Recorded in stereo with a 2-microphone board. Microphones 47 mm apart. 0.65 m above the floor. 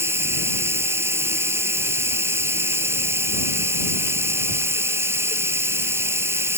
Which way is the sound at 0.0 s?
60° right (ahead or behind).